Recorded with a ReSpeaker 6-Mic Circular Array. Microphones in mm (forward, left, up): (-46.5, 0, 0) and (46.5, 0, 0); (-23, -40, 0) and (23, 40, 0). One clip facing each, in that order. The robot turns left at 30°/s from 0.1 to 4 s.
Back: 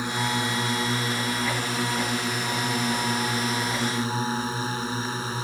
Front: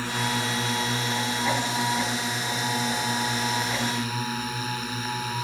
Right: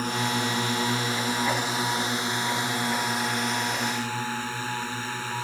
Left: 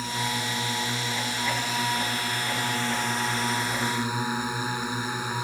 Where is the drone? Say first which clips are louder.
Back 1 dB, right 3 dB; 110° right; by 5.5 s 130° left.